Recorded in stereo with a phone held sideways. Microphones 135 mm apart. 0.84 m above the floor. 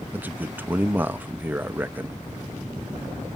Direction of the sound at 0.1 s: 15° right (ahead or behind).